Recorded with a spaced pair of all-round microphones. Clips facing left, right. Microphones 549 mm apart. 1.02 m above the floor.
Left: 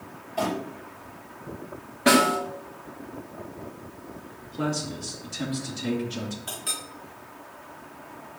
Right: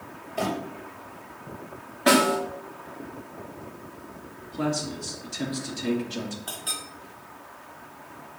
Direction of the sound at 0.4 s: 15° left (ahead or behind).